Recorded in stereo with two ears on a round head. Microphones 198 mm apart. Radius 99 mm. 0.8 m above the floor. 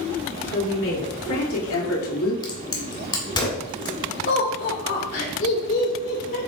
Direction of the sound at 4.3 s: 50° left (ahead or behind).